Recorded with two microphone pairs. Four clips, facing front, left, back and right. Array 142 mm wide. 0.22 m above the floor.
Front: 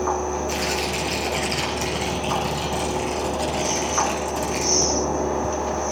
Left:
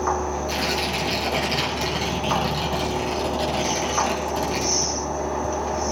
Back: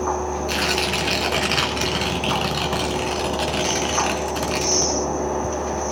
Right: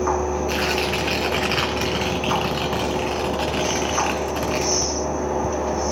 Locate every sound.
0.5 s tearing paper: 150° right, 2.5 m